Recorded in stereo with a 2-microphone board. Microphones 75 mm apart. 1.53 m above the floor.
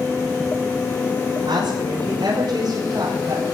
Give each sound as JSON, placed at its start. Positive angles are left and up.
{"t": 1.5, "sound": "a woman speaking", "side_deg": -70, "distance_m": 6.5}